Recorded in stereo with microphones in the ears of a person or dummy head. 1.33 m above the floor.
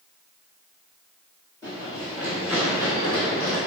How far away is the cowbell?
No cowbell in this recording.